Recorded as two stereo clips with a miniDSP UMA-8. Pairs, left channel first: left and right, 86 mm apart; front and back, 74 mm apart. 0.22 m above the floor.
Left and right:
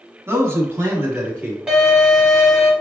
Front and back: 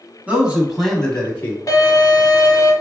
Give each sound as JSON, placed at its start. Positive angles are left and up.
{"t": 0.3, "sound": "a man speaking", "azimuth_deg": -125, "distance_m": 1.3}
{"t": 1.7, "sound": "a violin", "azimuth_deg": -15, "distance_m": 1.1}